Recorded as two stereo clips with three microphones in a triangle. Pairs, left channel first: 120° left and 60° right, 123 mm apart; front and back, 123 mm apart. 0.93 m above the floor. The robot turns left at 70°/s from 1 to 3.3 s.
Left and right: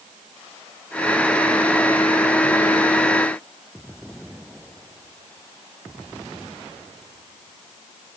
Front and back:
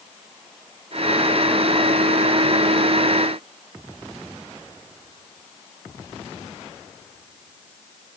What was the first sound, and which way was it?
Only background noise.